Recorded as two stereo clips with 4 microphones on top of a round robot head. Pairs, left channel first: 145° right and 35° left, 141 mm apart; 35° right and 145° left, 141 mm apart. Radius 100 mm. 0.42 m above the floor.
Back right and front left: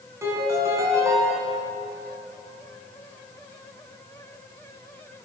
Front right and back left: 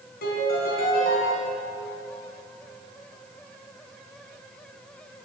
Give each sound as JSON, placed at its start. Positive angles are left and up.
{"t": 0.2, "sound": "a piano", "azimuth_deg": -35, "distance_m": 3.5}